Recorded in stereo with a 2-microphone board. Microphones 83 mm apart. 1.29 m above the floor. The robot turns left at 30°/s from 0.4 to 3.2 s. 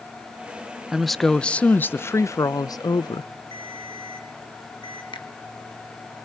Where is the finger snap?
85° left, 1.6 m.